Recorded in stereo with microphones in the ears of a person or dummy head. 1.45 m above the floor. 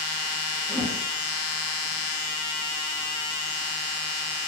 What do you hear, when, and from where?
0.7 s a whoosh: 15° right (ahead or behind), 0.9 m